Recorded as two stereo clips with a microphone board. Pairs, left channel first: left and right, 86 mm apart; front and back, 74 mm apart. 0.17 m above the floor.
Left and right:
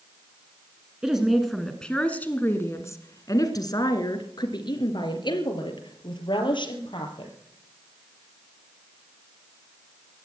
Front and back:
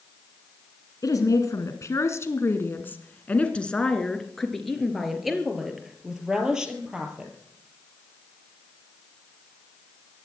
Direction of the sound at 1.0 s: 10° right.